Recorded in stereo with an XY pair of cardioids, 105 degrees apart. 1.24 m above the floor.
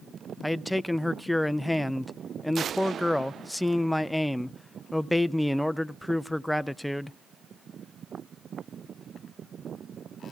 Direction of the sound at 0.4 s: 5° left.